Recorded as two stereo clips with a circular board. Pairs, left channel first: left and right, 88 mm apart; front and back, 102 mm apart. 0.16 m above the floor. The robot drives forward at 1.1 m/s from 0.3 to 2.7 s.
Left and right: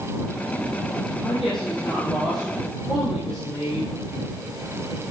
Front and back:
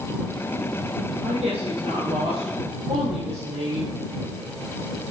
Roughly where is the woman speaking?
Behind.